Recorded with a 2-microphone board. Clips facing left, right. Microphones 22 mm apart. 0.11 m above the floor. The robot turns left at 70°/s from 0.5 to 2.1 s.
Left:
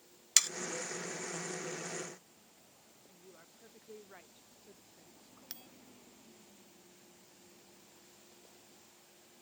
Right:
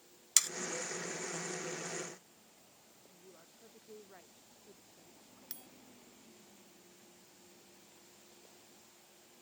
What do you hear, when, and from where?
0.4 s sawing: 25° left (ahead or behind)
3.1 s a woman speaking: 35° left (ahead or behind)
5.5 s a bell: 25° left (ahead or behind)